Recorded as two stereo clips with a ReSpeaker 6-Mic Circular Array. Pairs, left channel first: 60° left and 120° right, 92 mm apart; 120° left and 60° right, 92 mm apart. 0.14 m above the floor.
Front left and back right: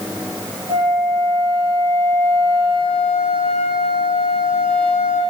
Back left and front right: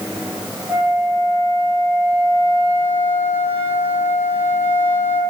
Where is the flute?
120° right, 4.5 m.